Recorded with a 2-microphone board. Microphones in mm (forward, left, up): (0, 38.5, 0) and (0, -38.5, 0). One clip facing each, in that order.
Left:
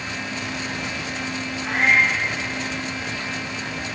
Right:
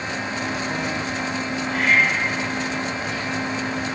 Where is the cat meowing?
80° left, 10 m.